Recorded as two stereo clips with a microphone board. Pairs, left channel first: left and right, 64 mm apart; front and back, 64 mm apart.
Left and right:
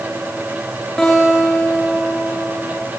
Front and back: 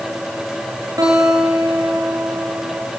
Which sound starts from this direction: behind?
A guitar, at 1.0 s.